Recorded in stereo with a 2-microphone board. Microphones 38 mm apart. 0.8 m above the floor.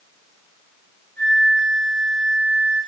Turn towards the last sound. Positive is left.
turn(degrees=60)  # may be behind; listen again after turning